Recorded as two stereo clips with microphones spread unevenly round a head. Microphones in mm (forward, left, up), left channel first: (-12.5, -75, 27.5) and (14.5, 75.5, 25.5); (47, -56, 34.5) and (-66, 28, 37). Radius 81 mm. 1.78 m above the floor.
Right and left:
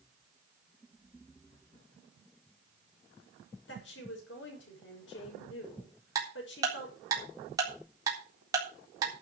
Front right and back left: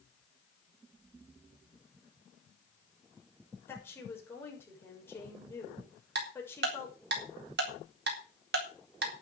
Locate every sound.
3.7 s a woman speaking: 110° right, 6.5 m
6.2 s ticking: 150° left, 3.5 m